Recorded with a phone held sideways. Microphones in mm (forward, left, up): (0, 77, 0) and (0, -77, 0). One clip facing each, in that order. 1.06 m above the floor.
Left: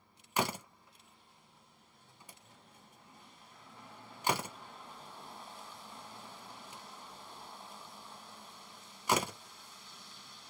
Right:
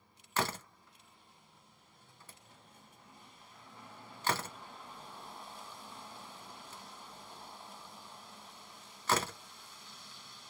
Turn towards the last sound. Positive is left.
turn(degrees=15)  # may be behind; listen again after turning